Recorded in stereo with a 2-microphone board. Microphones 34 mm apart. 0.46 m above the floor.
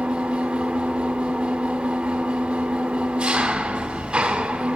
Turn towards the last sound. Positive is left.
turn(degrees=-35)  # may be behind; listen again after turning